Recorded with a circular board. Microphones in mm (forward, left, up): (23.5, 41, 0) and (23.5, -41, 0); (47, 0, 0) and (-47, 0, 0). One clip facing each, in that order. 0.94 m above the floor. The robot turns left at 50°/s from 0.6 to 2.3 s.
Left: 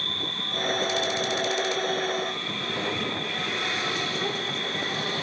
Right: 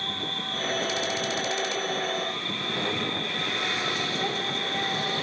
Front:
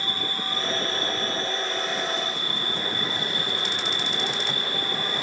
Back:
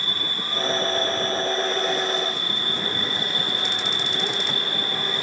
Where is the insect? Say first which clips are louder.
Right 1 dB, front 1 dB; 95° right, 9.5 m; by 5.2 s straight behind, 9.5 m.